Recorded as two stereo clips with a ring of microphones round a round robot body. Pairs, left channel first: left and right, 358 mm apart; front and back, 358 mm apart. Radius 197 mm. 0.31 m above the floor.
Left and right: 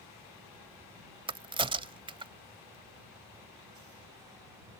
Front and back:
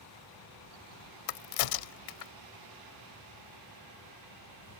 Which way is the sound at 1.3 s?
15° right.